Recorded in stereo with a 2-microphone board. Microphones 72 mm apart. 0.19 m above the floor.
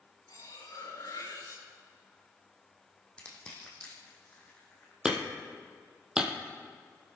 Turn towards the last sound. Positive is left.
turn(degrees=-10)  # may be behind; listen again after turning